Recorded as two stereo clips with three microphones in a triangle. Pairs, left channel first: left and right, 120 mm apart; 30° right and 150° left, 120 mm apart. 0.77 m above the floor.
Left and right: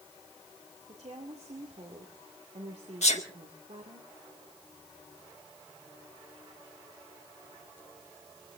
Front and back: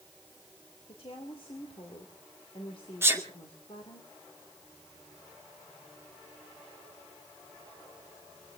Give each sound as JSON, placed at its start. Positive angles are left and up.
{"t": 0.9, "sound": "a woman speaking", "azimuth_deg": -65, "distance_m": 2.0}
{"t": 3.0, "sound": "a sneeze", "azimuth_deg": 85, "distance_m": 2.0}